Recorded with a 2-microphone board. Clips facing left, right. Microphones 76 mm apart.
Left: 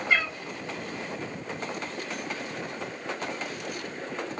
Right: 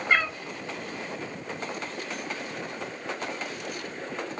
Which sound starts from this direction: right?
A cat meowing, at 0.1 s.